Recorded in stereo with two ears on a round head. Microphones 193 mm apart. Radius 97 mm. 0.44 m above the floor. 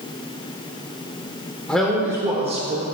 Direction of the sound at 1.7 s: 5° left (ahead or behind).